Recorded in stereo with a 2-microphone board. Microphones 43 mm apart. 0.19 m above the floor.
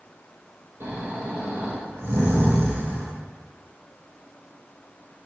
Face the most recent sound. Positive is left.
turn(degrees=-75)  # may be behind; listen again after turning